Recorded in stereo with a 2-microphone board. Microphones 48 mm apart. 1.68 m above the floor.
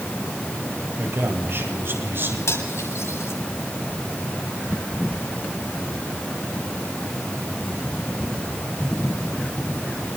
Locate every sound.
1.0 s a man speaking: 55° right (ahead or behind), 8 m; by 2.4 s 50° right (ahead or behind), 8.5 m
2.5 s cutlery clinking: 80° left, 8 m